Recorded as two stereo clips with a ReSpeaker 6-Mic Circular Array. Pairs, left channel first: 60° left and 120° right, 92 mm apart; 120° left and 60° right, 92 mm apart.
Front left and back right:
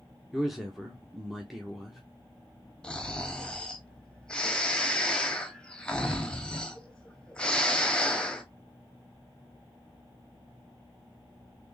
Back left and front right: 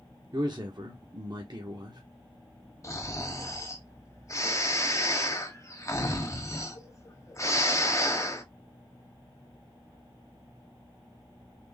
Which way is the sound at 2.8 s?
135° left.